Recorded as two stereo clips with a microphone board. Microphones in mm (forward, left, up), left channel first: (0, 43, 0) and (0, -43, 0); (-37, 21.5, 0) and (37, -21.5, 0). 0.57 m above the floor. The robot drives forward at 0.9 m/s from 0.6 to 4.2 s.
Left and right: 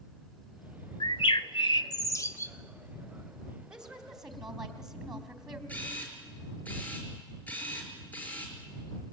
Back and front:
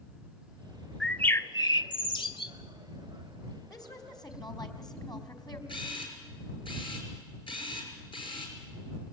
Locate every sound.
1.0 s a bird: 65° left, 0.7 m; by 2.5 s 150° left, 1.2 m
3.7 s a woman speaking: 170° right, 3 m
5.7 s a camera shutter: 160° left, 5.5 m